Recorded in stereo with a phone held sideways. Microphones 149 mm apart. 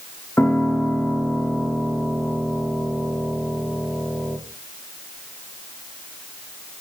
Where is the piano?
15° left (ahead or behind), 4.5 m.